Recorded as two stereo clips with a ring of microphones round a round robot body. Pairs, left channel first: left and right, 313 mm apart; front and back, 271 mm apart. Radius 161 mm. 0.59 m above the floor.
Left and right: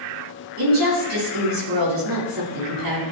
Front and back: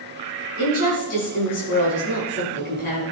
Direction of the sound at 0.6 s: 65° right.